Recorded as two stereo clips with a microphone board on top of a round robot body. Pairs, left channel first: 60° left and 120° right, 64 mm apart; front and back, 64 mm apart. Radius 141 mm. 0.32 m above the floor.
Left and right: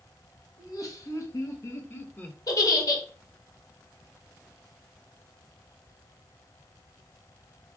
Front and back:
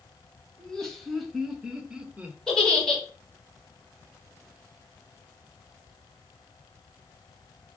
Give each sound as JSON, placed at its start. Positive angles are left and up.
{"t": 0.6, "sound": "laughter", "azimuth_deg": 80, "distance_m": 3.0}
{"t": 2.5, "sound": "a giggle", "azimuth_deg": 80, "distance_m": 3.0}